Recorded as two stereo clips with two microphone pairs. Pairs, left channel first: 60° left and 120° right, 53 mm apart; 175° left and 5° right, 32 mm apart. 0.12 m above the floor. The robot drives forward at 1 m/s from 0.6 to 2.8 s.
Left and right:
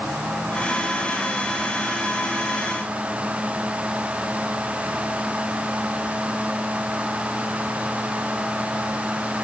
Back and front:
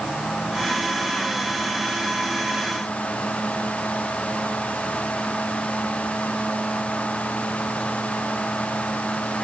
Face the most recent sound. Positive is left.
No sound to turn to.